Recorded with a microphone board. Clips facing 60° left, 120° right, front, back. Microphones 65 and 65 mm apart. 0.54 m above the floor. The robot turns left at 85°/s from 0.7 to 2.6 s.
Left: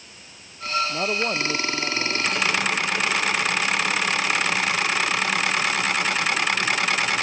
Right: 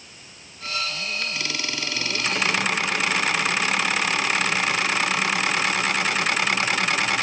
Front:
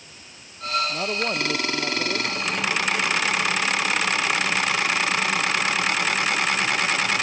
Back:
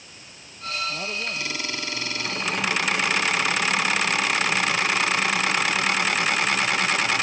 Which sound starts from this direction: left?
A man speaking, at 0.9 s.